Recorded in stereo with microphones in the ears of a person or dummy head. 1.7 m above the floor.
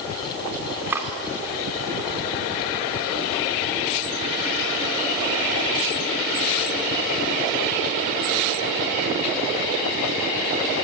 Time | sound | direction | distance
0.9 | cutlery clinking | 15° right (ahead or behind) | 2.5 m